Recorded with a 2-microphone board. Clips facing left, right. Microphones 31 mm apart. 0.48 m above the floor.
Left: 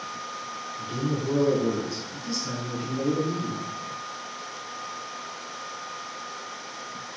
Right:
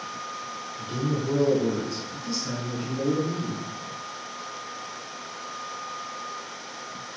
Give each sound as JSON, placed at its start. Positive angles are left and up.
{"t": 0.8, "sound": "a man speaking", "side_deg": -15, "distance_m": 1.8}